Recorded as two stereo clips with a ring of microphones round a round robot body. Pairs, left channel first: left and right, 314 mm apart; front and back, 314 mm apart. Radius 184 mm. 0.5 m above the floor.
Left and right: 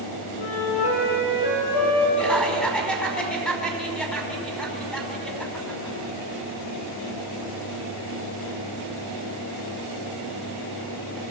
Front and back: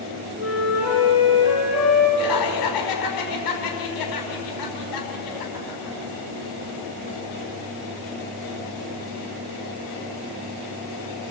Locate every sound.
0.4 s a flute: 90° left, 8 m
2.2 s laughter: 5° left, 5 m